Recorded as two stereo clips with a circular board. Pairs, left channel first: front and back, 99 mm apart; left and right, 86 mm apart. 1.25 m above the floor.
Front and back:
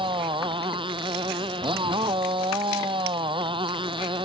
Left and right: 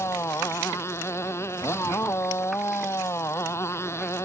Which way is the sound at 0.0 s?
150° left.